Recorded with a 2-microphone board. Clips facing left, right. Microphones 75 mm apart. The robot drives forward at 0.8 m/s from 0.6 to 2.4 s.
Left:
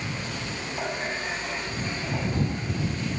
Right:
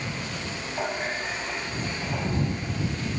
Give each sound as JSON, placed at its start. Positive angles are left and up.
{"t": 0.7, "sound": "a running tap", "side_deg": -45, "distance_m": 5.5}